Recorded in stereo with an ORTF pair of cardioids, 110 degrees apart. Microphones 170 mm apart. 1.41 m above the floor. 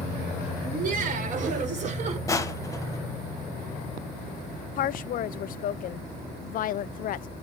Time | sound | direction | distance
0.6 | laughter | 50° right | 6 m
2.3 | crushing | 20° left | 1.5 m
4.8 | a woman speaking | 55° left | 0.5 m